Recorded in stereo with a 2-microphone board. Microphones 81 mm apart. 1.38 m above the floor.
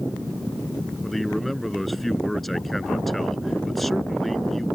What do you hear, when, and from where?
1.0 s a man speaking: centre (ahead or behind)